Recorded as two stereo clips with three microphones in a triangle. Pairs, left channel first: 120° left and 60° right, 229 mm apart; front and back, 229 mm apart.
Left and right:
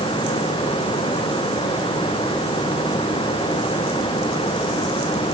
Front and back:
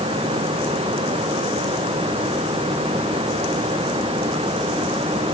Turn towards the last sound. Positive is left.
No sound to turn to.